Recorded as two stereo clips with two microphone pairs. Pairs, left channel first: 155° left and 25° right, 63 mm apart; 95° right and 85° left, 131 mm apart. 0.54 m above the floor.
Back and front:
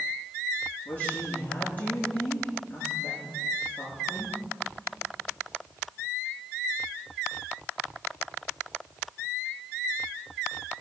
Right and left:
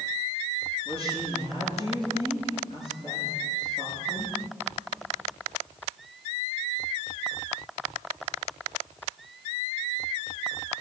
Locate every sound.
0.8 s a woman speaking: 135° right, 7.5 m